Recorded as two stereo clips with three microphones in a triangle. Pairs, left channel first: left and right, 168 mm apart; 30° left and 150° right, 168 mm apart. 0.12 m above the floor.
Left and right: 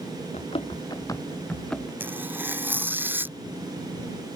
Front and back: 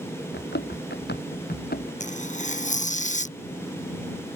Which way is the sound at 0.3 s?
40° left.